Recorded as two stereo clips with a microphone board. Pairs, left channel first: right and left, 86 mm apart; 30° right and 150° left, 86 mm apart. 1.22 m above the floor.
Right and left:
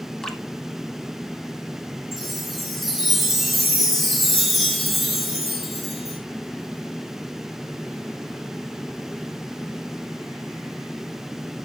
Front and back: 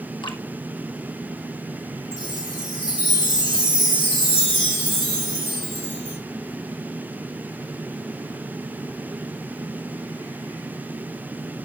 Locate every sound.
0.2 s dripping: 5° right, 2.0 m
2.1 s a chime: straight ahead, 4 m